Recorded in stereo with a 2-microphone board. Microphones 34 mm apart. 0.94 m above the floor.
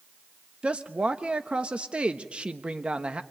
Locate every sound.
0.6 s a woman speaking: 35° right (ahead or behind), 1.0 m